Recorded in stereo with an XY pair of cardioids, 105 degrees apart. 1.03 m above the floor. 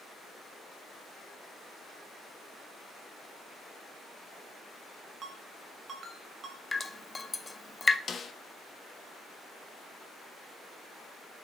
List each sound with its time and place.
5.2 s a ringtone: 50° right, 2.5 m
6.7 s dripping: 20° left, 0.8 m
8.1 s a snare drum: 40° left, 1.1 m